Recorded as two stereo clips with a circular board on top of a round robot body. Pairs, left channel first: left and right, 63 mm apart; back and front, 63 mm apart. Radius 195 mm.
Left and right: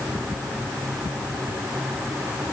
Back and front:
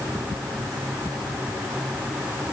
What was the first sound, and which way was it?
Only background noise.